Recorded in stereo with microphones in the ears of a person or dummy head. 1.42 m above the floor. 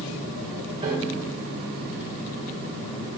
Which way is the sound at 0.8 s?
30° right (ahead or behind).